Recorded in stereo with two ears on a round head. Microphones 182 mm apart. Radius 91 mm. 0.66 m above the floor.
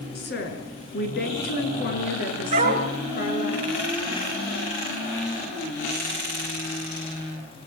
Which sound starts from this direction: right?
A dog barking, at 2.5 s.